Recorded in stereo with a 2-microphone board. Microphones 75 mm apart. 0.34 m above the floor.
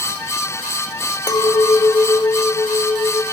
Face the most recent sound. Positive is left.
turn(degrees=50)  # may be behind; listen again after turning